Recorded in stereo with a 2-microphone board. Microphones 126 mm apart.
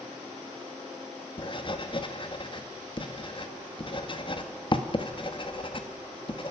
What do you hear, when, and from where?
1.4 s writing: 40° left (ahead or behind), 1.7 m